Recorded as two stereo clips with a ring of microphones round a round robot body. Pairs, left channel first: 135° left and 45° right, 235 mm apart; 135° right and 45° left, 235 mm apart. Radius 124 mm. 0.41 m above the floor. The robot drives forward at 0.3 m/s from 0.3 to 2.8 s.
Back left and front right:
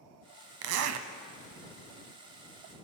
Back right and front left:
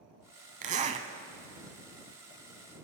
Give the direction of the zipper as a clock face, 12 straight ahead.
1 o'clock.